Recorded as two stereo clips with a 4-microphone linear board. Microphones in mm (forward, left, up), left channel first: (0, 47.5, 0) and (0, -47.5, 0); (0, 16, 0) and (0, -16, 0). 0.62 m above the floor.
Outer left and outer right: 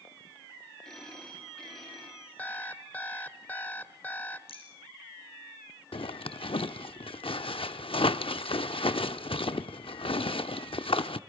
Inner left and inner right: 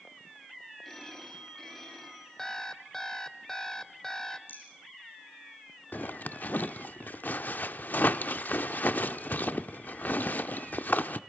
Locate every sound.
0.8 s a phone ringing: 5° left (ahead or behind), 6.5 m
2.4 s an alarm clock: 20° left (ahead or behind), 0.9 m
4.5 s a rattle: 85° left, 5 m
5.9 s a zipper: 70° left (ahead or behind), 0.6 m